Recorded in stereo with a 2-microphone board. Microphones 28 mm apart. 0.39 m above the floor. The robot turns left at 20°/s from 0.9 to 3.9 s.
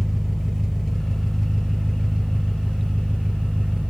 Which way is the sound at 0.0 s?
10° right.